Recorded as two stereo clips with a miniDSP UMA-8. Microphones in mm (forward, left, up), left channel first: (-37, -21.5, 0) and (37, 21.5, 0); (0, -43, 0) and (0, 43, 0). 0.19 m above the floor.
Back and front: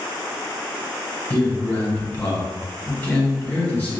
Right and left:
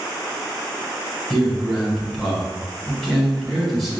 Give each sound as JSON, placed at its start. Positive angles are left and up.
{"t": 1.3, "sound": "a man speaking", "azimuth_deg": -175, "distance_m": 1.3}